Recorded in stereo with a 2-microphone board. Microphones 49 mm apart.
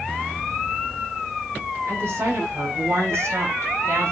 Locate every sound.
1.9 s a woman speaking: 55° right (ahead or behind), 5 m; by 4.1 s 60° right (ahead or behind), 3.5 m